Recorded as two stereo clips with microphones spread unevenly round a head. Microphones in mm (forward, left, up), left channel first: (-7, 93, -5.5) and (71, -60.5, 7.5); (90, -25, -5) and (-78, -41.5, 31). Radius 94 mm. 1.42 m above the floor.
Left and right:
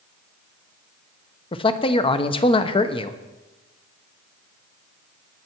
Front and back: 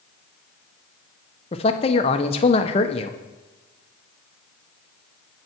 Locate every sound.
1.5 s a man speaking: 60° left, 1.0 m